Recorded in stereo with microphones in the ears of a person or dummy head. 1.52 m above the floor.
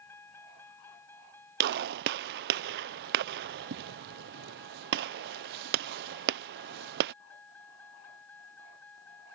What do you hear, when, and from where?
0.0 s a vehicle: 15° left (ahead or behind); by 9.4 s 10° left (ahead or behind)
1.6 s a gunshot: 60° right (ahead or behind)